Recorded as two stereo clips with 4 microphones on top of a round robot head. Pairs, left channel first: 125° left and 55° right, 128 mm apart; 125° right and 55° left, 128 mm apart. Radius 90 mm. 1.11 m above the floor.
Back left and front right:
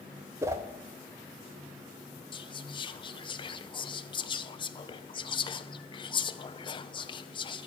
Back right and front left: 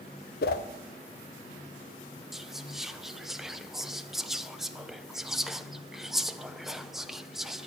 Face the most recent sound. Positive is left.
turn(degrees=145)